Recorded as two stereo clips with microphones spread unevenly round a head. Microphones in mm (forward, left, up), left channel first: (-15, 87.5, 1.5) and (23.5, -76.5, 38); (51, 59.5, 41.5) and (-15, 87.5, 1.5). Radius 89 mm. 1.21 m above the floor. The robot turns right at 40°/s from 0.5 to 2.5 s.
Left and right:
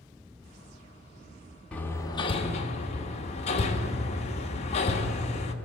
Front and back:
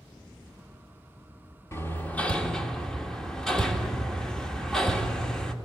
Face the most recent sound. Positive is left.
turn(degrees=45)